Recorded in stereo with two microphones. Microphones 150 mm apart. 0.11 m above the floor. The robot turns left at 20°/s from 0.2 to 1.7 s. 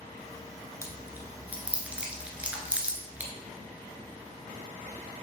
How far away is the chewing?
About 1.4 m.